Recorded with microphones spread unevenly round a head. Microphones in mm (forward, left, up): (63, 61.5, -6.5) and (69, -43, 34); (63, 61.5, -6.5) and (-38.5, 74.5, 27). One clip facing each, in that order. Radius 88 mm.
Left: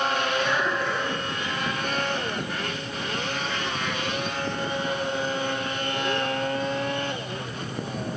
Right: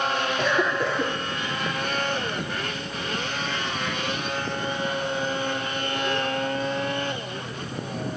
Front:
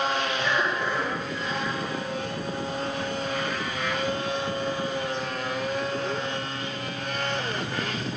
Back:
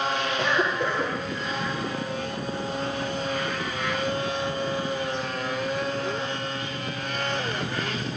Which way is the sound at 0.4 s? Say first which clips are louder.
Right 2 dB, back 2 dB; 110° right.